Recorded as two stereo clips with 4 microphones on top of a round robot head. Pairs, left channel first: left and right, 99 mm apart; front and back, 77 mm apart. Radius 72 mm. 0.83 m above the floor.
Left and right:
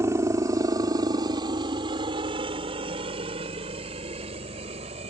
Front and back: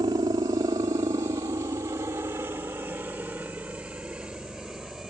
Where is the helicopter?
145° right; by 5.1 s 95° right.